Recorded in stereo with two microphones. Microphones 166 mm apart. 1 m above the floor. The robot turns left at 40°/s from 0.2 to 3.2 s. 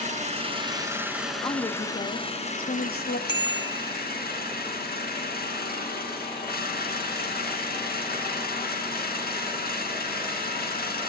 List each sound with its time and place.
0.0 s an engine running: 135° right, 3 m; by 11.1 s 105° left, 3 m
1.4 s a woman speaking: 155° left, 1.3 m; by 3.2 s 85° left, 1.3 m
3.3 s a bicycle bell: 30° left (ahead or behind), 2.5 m